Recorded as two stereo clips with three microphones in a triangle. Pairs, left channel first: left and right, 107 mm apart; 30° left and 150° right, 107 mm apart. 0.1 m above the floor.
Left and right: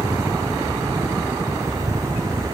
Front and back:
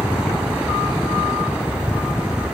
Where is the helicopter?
30° right.